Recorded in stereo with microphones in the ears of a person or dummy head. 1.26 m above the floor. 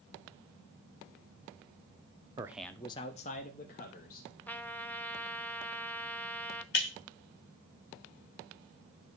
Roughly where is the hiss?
I don't hear a hiss.